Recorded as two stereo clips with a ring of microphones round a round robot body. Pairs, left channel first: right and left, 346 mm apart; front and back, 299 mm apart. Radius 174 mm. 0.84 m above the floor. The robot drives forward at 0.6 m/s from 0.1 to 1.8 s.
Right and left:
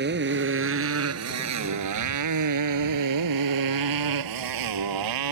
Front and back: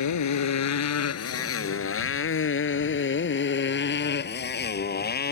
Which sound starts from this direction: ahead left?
A motorcycle, at 0.0 s.